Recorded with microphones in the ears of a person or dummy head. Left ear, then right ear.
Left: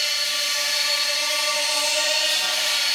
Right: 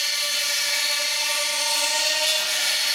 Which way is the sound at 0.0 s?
60° right (ahead or behind).